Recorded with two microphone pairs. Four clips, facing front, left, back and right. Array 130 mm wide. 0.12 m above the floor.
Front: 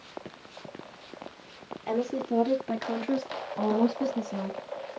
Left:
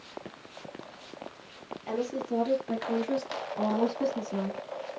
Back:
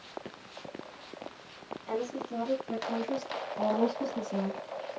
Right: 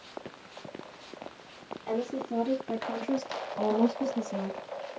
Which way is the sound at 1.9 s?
10° left.